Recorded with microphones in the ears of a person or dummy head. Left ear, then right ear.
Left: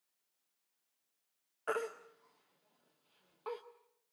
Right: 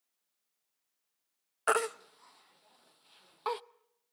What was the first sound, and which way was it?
A baby crying, 40° right (ahead or behind).